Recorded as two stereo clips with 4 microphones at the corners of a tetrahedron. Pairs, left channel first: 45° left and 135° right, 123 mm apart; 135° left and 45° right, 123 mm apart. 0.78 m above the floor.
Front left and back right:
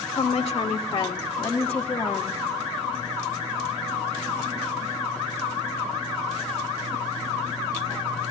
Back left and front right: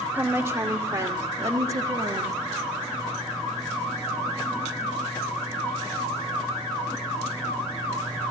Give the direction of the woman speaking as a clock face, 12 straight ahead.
11 o'clock.